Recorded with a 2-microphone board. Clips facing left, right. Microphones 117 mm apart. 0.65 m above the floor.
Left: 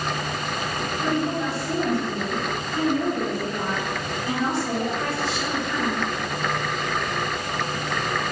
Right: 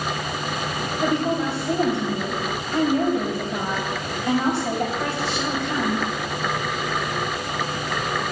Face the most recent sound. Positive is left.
turn(degrees=-75)  # may be behind; listen again after turning